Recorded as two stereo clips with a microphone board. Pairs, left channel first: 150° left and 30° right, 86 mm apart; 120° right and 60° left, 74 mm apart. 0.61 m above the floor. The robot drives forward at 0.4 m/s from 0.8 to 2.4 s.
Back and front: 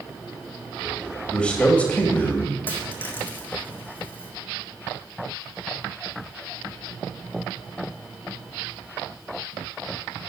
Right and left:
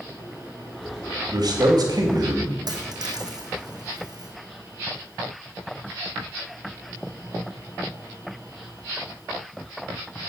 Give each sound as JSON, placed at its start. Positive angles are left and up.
{"t": 1.3, "sound": "a man speaking", "azimuth_deg": 75, "distance_m": 2.5}
{"t": 2.7, "sound": "a dropped coin", "azimuth_deg": 85, "distance_m": 2.5}